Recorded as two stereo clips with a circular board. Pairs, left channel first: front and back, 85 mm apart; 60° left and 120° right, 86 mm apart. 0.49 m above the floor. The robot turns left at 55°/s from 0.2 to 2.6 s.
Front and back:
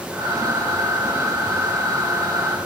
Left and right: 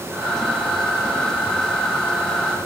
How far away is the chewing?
No chewing in this recording.